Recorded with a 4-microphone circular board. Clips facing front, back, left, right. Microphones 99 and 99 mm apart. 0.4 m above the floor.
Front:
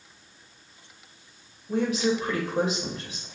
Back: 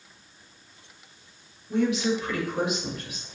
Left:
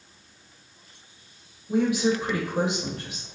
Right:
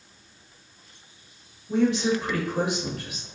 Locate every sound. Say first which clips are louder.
1.7 s a woman speaking: even, even; 10° left, 1.8 m; by 3.3 s 45° left, 2.0 m